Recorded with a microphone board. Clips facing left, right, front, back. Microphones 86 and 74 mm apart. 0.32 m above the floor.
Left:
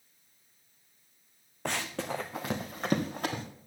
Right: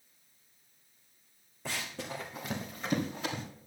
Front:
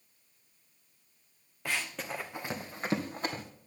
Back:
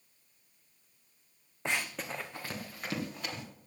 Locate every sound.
1.6 s running footsteps: 110° left, 1.3 m; by 3.4 s 55° left, 3 m